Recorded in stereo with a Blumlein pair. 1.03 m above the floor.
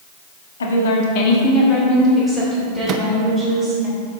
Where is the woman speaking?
70° left, 1.5 m; by 3.9 s 5° right, 4 m.